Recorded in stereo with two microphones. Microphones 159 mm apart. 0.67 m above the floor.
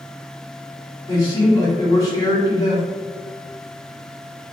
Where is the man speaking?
25° left (ahead or behind), 1.8 m.